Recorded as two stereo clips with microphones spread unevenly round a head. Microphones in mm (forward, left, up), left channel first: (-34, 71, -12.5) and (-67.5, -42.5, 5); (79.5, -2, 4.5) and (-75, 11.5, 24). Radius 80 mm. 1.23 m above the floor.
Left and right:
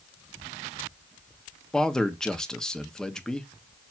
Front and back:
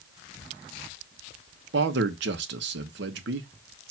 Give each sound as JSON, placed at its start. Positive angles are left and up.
{"t": 1.7, "sound": "a man speaking", "azimuth_deg": 155, "distance_m": 1.3}